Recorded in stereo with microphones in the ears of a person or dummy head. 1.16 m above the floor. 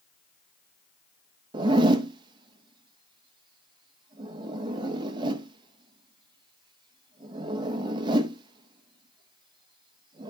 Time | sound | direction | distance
1.5 | a zipper | 25° right (ahead or behind) | 0.8 m